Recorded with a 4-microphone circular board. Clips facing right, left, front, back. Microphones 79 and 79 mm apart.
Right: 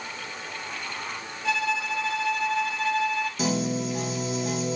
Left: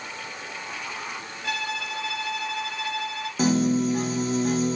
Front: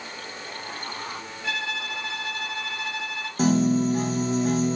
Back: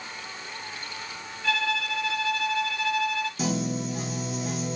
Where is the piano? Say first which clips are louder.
Left 9 dB, front 12 dB; 40° left, 1.4 m.